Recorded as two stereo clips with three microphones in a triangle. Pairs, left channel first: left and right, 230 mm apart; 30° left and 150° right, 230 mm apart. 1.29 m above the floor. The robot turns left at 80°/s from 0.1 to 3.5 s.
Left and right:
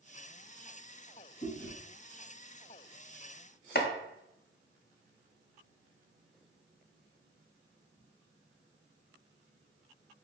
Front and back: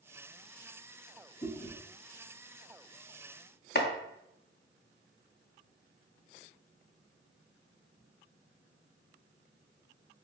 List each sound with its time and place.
1.4 s chewing: 65° left, 1.7 m; by 1.8 s 40° left, 1.7 m
3.8 s chopping: 60° left, 0.5 m